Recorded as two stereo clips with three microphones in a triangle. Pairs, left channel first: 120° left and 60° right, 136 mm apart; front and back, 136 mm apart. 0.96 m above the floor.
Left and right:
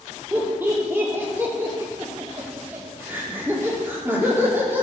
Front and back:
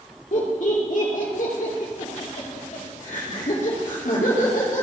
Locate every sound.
0.3 s laughter: 15° left, 2.5 m